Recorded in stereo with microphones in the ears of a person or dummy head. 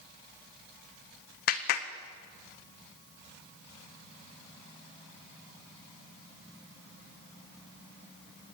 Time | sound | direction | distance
1.5 | a clap | 60° left (ahead or behind) | 1.5 m